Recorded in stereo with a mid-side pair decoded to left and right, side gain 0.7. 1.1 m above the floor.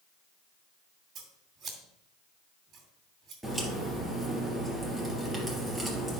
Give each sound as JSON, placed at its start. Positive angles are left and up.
{"t": 1.1, "sound": "scissors", "azimuth_deg": -40, "distance_m": 2.5}
{"t": 3.4, "sound": "a crack", "azimuth_deg": -10, "distance_m": 3.5}